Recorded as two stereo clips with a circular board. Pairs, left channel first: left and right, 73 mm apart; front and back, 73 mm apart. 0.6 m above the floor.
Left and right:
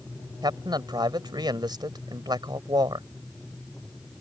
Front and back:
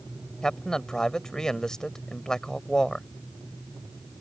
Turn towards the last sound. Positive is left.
turn(degrees=-80)